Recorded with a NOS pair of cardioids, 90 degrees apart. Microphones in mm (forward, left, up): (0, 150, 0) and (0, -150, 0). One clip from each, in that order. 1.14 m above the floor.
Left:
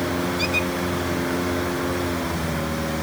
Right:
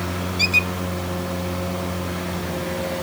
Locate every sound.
0.4 s a squeak: 45° right